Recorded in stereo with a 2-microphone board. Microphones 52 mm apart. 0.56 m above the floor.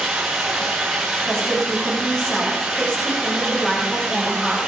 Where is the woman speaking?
15° left (ahead or behind), 7.5 m.